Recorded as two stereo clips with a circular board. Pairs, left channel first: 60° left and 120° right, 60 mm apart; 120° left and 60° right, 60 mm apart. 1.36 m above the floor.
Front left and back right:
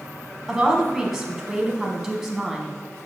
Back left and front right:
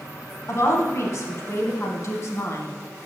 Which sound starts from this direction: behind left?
A woman speaking, at 0.5 s.